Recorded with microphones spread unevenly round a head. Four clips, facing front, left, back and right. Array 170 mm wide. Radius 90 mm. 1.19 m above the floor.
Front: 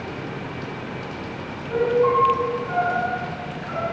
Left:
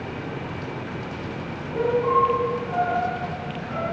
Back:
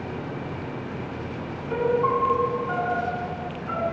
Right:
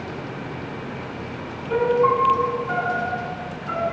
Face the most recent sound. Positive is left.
turn(degrees=-85)